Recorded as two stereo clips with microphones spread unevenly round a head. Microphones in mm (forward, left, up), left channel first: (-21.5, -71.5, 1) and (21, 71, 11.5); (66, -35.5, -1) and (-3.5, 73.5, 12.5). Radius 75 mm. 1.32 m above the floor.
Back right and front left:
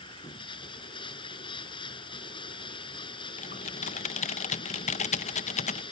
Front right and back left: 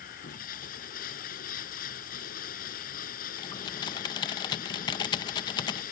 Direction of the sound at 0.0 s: 45° right.